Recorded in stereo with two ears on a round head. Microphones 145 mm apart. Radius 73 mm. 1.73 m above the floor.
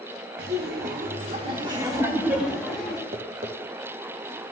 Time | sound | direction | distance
0.4 | laughter | 70° right (ahead or behind) | 1.7 m
3.1 | tapping | 35° right (ahead or behind) | 0.9 m